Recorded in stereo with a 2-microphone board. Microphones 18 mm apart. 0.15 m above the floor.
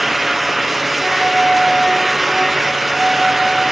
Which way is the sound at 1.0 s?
40° left (ahead or behind).